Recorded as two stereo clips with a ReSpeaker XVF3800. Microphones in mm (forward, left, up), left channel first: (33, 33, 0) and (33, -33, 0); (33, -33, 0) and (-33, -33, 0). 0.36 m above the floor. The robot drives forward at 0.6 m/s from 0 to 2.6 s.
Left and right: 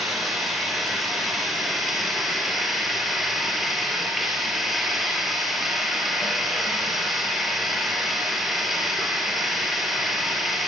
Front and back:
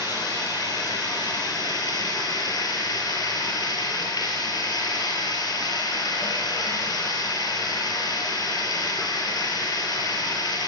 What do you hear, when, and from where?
0.0 s running water: straight ahead, 8 m